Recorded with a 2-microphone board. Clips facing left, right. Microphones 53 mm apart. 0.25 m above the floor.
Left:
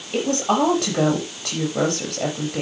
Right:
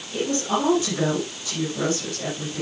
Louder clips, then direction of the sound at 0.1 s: Left 4 dB; 65° left (ahead or behind).